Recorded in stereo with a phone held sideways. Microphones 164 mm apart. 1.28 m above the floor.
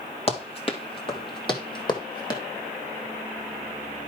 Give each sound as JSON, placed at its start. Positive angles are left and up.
{"t": 0.3, "sound": "running footsteps", "side_deg": 35, "distance_m": 1.6}